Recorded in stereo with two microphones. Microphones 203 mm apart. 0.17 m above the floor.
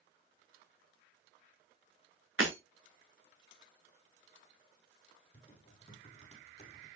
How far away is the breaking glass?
About 3 m.